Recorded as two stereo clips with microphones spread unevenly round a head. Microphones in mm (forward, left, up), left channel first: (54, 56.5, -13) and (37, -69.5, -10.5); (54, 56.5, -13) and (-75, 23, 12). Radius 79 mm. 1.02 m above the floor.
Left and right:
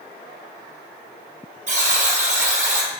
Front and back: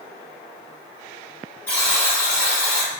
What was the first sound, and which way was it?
A buzzer, 70° right.